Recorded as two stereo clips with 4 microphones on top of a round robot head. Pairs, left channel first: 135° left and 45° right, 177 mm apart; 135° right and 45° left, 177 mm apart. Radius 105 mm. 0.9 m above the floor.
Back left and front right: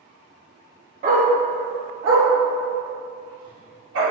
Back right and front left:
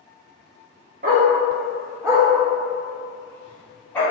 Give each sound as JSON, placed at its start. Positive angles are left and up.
{"t": 1.0, "sound": "a dog barking", "azimuth_deg": 0, "distance_m": 0.8}